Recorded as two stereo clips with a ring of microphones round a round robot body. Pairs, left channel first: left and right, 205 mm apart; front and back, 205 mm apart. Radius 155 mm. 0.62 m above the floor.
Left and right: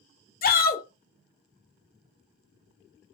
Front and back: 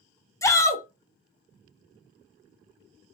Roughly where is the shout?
Left.